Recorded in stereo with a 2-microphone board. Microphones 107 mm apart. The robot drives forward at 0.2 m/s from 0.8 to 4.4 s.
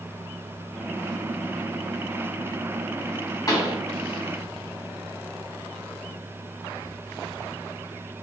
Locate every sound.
3.5 s a pop: 35° left (ahead or behind), 1.1 m